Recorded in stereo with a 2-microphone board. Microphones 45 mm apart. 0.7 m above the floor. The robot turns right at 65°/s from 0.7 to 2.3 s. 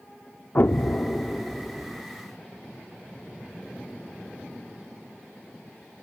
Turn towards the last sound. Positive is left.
turn(degrees=-130)